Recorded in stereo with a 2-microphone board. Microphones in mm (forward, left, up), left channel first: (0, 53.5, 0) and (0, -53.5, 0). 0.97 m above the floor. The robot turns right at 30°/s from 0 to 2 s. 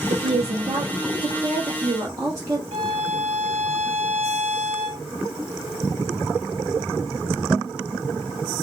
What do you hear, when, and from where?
0.1 s a woman speaking: 80° right, 1.5 m; by 2.6 s 25° right, 1.5 m
2.7 s a violin: 70° right (ahead or behind), 1.5 m